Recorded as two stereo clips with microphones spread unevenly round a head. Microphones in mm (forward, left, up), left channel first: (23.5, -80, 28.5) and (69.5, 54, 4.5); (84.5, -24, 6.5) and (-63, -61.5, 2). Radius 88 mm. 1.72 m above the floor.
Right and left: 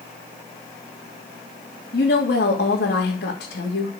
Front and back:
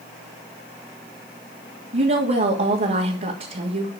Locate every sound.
1.9 s a woman speaking: 135° right, 3 m